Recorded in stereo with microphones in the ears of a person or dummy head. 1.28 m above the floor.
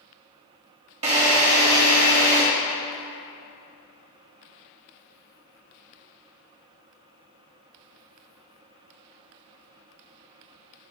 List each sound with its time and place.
1.0 s a drill: 40° right (ahead or behind), 1.9 m